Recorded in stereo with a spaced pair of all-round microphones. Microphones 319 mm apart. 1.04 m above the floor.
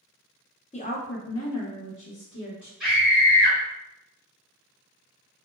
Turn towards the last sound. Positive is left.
turn(degrees=-10)  # may be behind; listen again after turning